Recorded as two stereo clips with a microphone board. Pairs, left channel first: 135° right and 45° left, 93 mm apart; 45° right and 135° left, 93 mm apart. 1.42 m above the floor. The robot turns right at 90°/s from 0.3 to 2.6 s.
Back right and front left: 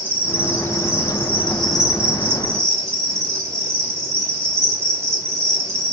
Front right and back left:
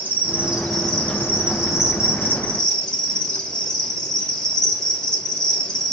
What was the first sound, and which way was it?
An insect, 175° right.